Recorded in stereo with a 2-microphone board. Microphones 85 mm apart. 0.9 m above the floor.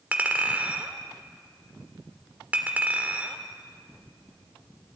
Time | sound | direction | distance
0.1 | a clink | 20° right (ahead or behind) | 2.0 m